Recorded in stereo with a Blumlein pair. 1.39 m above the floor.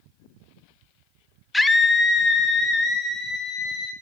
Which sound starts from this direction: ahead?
A scream, at 1.5 s.